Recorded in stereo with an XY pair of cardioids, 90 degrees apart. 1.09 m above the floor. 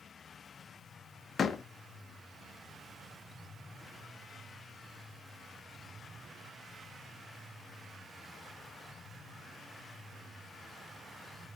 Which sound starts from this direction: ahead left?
A door slam, at 1.4 s.